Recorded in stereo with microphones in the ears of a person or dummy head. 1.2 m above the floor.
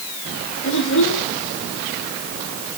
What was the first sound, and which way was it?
A child speaking, 75° left (ahead or behind).